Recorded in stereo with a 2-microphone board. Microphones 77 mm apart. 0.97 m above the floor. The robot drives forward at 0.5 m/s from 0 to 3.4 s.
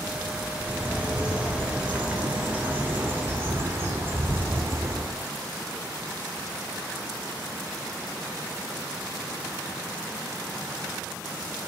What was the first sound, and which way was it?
A bird, 15° right (ahead or behind).